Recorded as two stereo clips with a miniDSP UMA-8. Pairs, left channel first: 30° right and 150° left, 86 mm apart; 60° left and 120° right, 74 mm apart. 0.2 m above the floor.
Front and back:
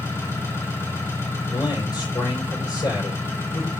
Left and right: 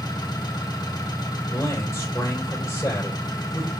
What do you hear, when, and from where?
0.0 s an engine running: 30° left, 2.5 m
1.5 s a man speaking: 5° left, 5.5 m